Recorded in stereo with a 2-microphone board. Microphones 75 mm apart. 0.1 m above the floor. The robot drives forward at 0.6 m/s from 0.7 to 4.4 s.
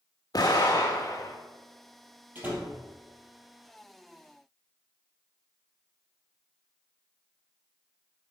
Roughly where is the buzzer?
No buzzer in this recording.